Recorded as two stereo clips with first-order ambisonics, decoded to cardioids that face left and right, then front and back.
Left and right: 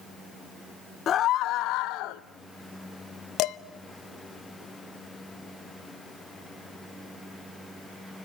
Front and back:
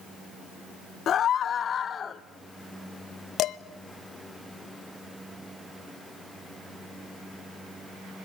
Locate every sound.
1.1 s a scream: 45° left, 0.6 m; by 2.2 s 70° left, 1.3 m
3.4 s dishes clattering: 50° left, 0.7 m